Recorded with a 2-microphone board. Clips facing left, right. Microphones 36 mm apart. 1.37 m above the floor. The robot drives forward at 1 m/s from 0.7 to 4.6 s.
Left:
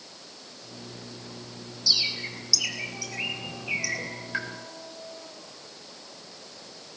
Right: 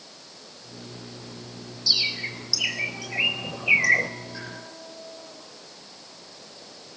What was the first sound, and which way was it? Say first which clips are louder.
A bird: right 2 dB; 20° right (ahead or behind).